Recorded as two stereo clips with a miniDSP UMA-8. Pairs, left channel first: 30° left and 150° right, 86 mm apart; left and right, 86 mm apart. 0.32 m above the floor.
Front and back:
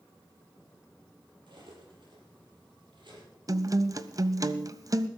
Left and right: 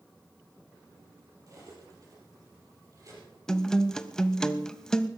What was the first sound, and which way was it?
Cutlery clinking, 130° right.